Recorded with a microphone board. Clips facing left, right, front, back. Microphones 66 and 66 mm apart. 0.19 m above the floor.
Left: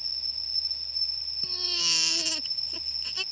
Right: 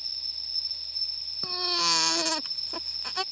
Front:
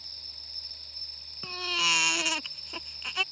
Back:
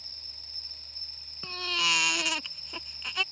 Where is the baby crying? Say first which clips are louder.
Right 8 dB, even; 90° right.